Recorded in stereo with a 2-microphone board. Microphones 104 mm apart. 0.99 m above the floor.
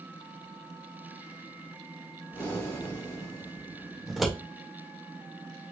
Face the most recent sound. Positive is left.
turn(degrees=0)  # may be behind; listen again after turning